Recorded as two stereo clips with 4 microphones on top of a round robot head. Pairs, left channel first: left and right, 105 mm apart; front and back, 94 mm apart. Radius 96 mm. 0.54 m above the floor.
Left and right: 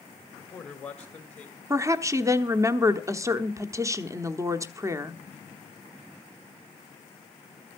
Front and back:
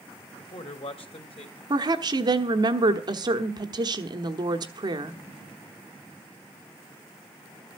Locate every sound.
0.4 s a man speaking: 5° left, 2 m; by 1.6 s 15° left, 2.5 m
1.7 s a woman speaking: 145° right, 1.1 m